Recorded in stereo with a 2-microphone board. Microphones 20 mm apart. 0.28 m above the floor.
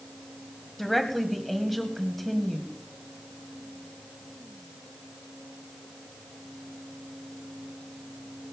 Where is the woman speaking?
5° left (ahead or behind), 1.7 m.